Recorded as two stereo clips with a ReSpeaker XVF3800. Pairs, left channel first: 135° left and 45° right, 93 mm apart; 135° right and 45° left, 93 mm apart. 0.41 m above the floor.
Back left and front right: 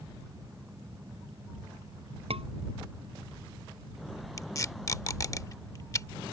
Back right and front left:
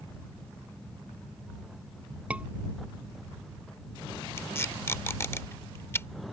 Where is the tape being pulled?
175° left.